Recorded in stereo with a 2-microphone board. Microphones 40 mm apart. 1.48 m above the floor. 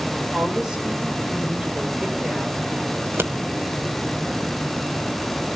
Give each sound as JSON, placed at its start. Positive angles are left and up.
{"t": 0.3, "sound": "a woman speaking", "side_deg": -15, "distance_m": 7.0}
{"t": 3.0, "sound": "scissors", "side_deg": -75, "distance_m": 1.4}